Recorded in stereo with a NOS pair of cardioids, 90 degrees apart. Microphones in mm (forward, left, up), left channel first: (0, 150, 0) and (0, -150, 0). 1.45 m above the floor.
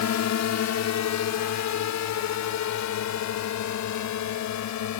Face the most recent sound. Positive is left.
turn(degrees=75)